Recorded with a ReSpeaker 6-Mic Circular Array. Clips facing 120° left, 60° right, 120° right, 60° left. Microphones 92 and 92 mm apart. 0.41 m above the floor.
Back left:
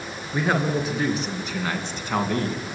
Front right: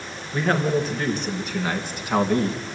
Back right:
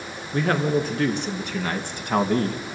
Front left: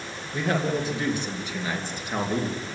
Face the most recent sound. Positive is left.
turn(degrees=-135)